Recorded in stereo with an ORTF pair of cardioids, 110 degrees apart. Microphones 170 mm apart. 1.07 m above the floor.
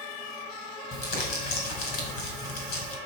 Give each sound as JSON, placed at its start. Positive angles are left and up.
{"t": 0.9, "sound": "crumpling", "azimuth_deg": 60, "distance_m": 5.0}